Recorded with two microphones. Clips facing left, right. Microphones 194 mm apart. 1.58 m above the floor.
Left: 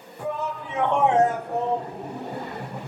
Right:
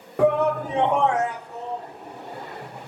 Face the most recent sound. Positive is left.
turn(degrees=80)